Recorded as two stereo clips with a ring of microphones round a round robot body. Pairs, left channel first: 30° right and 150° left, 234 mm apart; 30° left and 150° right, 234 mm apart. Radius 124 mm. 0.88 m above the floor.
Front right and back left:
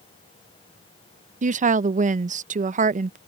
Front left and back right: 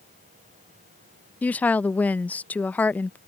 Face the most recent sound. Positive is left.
turn(degrees=110)